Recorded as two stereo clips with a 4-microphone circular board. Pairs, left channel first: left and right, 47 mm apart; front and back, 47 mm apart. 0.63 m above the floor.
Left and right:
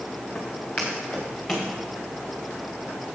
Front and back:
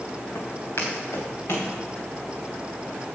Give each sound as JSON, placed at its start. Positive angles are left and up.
{"t": 0.3, "sound": "footsteps", "azimuth_deg": 20, "distance_m": 3.0}